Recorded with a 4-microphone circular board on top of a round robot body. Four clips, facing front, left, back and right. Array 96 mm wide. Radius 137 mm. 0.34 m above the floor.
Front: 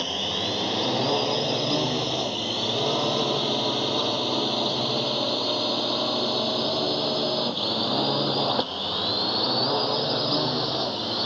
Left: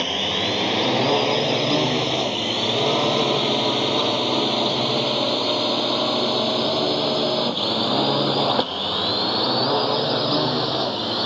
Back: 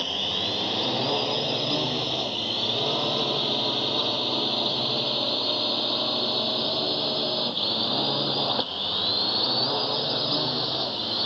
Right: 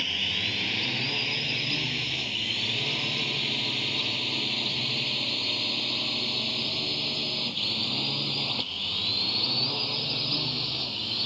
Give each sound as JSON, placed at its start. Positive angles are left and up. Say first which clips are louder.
{"t": 0.0, "sound": "a drone", "louder": "left 9 dB, front 2 dB", "azimuth_deg": 85}